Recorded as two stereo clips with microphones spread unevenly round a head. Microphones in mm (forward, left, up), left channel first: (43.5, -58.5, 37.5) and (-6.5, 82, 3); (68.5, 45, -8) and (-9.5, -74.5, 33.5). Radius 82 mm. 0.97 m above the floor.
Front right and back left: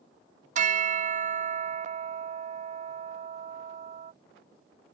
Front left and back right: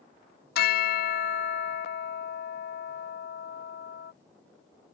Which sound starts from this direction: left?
A bell, at 0.6 s.